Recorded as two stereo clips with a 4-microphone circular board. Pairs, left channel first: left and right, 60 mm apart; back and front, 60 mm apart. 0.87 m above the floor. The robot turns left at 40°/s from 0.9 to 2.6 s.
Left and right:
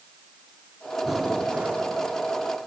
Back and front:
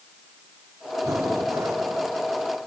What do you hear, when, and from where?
1.0 s breathing: 5° right, 1.8 m; by 1.9 s 40° right, 1.8 m